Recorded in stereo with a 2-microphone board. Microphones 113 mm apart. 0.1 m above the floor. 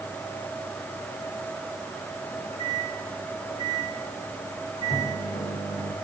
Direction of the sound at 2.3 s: 65° left (ahead or behind).